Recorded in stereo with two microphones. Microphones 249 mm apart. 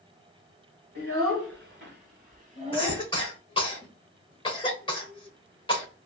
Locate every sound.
0.9 s a child speaking: 60° right (ahead or behind), 1.5 m; by 3.0 s 15° right (ahead or behind), 1.0 m
2.7 s a cough: 20° left (ahead or behind), 1.1 m